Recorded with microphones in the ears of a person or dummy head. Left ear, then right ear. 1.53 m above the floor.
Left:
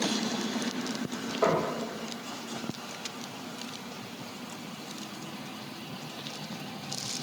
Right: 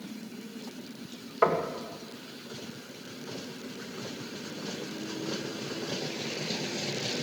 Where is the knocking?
60° right (ahead or behind), 2.0 m.